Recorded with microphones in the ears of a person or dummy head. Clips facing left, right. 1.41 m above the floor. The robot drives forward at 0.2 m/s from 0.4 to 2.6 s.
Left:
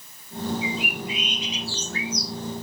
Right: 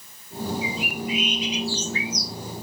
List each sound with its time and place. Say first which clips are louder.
0.6 s a bird: even; 25° right (ahead or behind), 2.5 m; by 2.3 s 20° right (ahead or behind), 3 m